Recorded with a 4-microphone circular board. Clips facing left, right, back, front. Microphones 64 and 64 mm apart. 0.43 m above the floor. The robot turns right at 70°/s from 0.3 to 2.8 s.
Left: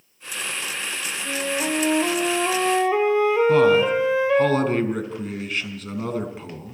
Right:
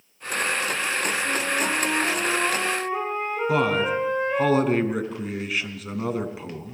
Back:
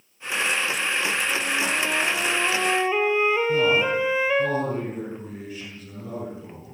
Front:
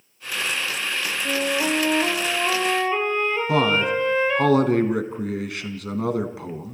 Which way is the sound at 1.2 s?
10° right.